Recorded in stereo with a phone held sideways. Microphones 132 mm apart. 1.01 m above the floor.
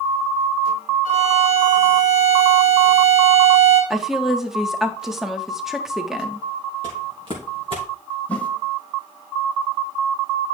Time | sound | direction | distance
1.1 | a violin | 60° right (ahead or behind) | 4 m
3.9 | a woman speaking | 5° right (ahead or behind) | 1.2 m
6.8 | footsteps | 40° right (ahead or behind) | 3.5 m
8.3 | a whoosh | 10° left (ahead or behind) | 0.8 m